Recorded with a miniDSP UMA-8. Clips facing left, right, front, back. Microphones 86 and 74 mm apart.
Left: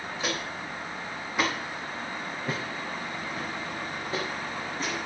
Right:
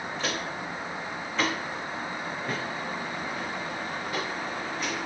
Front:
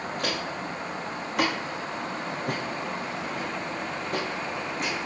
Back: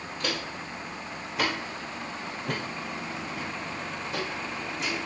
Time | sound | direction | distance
0.2 | footsteps | 5° left | 6 m